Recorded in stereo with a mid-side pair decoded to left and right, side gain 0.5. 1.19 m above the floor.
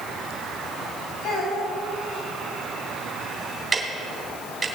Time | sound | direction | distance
1.2 | a child speaking | 65° left | 5.5 m
3.7 | ticking | 20° right | 2.5 m